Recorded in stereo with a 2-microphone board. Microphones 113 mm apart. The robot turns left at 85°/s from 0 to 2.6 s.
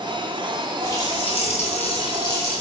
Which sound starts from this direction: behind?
A running tap, at 0.8 s.